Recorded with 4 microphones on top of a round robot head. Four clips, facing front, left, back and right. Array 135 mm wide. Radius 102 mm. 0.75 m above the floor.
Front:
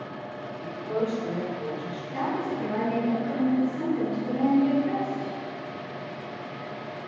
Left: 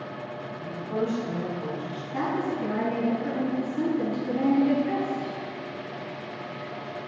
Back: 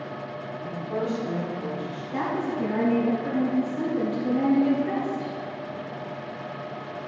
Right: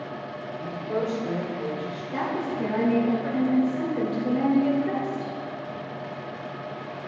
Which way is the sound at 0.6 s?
50° right.